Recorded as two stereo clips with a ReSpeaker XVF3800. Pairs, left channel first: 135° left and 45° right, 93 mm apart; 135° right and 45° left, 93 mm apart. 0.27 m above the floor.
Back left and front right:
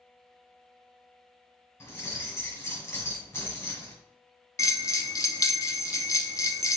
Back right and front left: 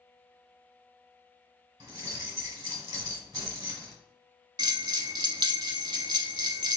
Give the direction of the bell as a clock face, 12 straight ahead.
9 o'clock.